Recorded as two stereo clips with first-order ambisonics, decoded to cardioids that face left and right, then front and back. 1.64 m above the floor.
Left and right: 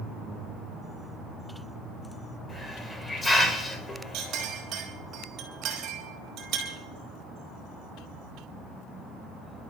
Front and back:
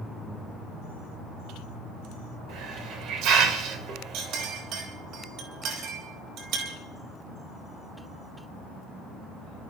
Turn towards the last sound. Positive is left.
turn(degrees=-140)